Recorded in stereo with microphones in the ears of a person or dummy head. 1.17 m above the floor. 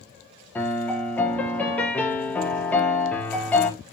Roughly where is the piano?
Centre.